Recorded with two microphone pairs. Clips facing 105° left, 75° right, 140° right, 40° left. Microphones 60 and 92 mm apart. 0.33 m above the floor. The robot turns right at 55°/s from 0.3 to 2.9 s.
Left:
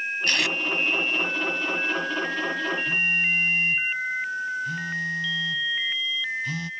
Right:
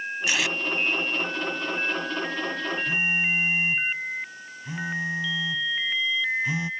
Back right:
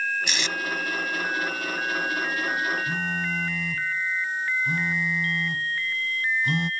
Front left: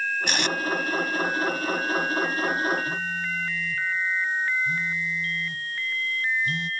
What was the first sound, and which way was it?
Tape being pulled, straight ahead.